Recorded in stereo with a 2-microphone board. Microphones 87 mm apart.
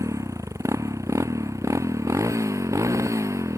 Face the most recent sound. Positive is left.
turn(degrees=-35)  # may be behind; listen again after turning